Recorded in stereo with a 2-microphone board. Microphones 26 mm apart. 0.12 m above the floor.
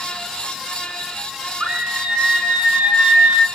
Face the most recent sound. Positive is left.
turn(degrees=-65)  # may be behind; listen again after turning